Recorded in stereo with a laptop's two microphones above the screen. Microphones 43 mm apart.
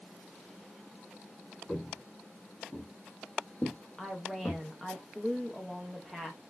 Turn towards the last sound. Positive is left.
turn(degrees=0)  # may be behind; listen again after turning